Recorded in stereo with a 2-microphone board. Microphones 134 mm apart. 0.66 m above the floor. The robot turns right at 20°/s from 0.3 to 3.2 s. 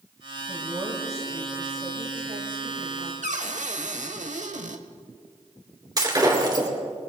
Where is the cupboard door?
65° right (ahead or behind), 0.9 m.